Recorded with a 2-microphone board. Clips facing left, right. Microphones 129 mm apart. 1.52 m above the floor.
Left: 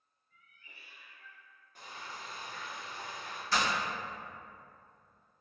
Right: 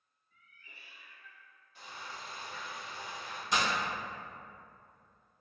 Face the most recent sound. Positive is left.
turn(degrees=-20)  # may be behind; listen again after turning